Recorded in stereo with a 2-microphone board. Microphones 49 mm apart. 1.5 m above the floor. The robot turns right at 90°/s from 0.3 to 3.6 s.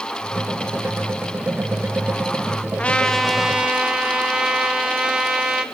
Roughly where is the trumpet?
Behind left.